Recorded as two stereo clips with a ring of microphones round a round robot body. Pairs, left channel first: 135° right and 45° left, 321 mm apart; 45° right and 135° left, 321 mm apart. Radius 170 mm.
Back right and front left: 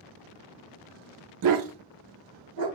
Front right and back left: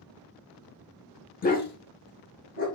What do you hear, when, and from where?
1.4 s a dog barking: 15° left, 0.5 m